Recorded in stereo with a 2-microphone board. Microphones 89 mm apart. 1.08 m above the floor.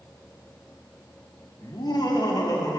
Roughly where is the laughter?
Left.